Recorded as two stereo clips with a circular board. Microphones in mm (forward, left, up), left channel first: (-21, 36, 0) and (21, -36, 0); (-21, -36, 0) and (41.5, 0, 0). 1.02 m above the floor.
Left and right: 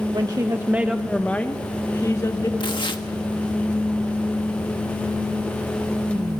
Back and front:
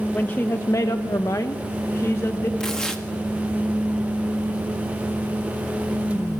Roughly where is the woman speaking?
Right.